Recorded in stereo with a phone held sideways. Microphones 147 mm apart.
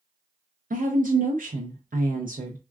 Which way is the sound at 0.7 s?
65° right (ahead or behind).